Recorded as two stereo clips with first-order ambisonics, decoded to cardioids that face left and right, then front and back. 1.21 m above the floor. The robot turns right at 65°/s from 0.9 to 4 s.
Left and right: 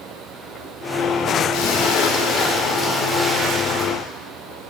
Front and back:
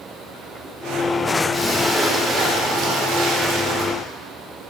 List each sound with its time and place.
1.5 s a splash: 70° left, 2 m; by 3.9 s 130° right, 2 m